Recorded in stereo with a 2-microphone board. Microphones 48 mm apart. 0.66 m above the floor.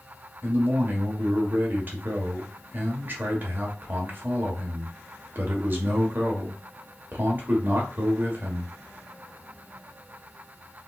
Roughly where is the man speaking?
Right.